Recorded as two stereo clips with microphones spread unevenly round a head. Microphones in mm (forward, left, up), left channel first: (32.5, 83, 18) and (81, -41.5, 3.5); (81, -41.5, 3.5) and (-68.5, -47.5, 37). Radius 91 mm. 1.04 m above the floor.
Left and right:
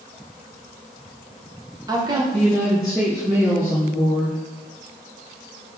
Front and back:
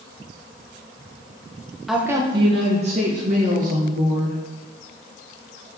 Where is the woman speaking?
70° right, 0.6 m; by 4.4 s 140° right, 2 m.